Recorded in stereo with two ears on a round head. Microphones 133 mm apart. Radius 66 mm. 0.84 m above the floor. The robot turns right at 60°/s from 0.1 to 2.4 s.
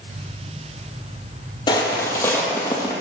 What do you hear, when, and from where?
1.7 s footsteps: 30° left (ahead or behind), 1.3 m; by 2.9 s 25° left (ahead or behind), 1.6 m